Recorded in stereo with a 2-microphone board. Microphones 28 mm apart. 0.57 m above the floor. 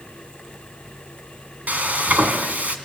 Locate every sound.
1.7 s frying: 70° right (ahead or behind), 2.5 m